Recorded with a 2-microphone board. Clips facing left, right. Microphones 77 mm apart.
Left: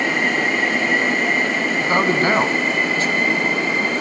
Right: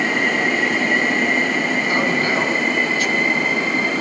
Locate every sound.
1.8 s a man speaking: 30° left (ahead or behind), 1.7 m